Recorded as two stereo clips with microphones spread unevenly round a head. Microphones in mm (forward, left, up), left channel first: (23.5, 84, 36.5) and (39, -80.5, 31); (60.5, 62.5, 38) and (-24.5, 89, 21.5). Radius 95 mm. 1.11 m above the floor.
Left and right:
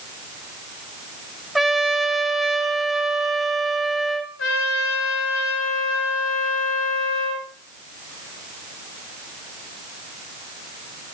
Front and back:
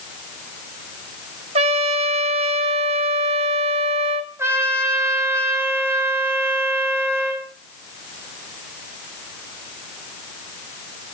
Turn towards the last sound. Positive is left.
turn(degrees=105)